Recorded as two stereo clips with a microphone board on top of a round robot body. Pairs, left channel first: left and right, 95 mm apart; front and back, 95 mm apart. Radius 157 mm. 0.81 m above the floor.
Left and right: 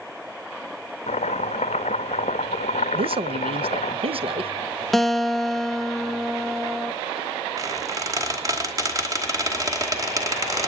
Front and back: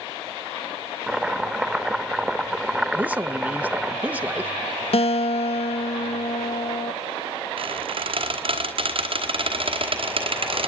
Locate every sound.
1.1 s chopping: 95° left, 0.6 m
2.9 s a man speaking: 105° right, 0.9 m
4.9 s a guitar: straight ahead, 0.7 m
7.6 s a squeak: 150° right, 2 m